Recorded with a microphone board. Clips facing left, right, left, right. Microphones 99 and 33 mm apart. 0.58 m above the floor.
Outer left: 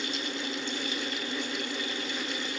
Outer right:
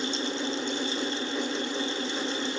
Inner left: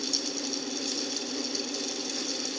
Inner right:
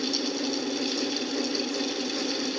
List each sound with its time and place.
Only background noise.